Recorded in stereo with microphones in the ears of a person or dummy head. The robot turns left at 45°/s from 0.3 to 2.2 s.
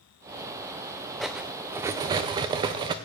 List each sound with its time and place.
1.2 s cutlery clinking: 10° right, 0.5 m; by 3.0 s 55° right, 0.5 m